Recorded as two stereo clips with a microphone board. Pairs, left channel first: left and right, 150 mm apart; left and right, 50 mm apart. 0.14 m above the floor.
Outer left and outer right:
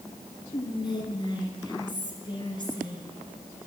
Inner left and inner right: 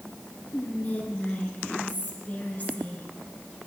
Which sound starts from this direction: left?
Whispering, at 0.5 s.